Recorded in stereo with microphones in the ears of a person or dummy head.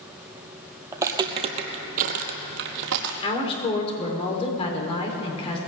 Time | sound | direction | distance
0.9 | footsteps | 15° right (ahead or behind) | 1.5 m
3.2 | a woman speaking | 35° left (ahead or behind) | 3.5 m